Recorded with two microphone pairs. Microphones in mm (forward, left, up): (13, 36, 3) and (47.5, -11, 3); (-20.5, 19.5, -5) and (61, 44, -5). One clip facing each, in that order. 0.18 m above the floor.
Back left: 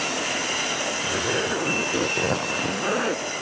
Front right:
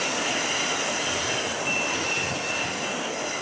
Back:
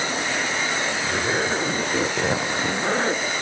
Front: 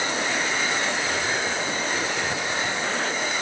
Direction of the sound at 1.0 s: 145° left.